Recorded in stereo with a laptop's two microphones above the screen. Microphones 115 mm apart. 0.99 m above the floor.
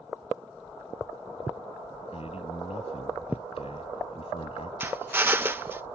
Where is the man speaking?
60° left (ahead or behind).